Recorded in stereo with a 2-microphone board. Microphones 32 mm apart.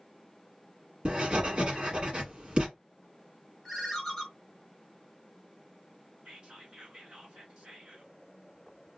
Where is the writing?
35° right (ahead or behind), 1.4 m.